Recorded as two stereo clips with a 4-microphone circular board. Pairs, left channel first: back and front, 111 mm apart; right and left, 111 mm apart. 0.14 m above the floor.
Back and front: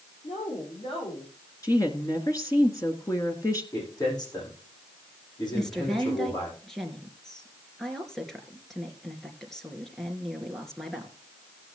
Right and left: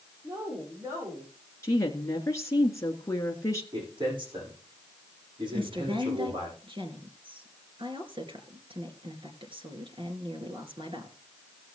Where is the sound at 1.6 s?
140° right, 1.6 m.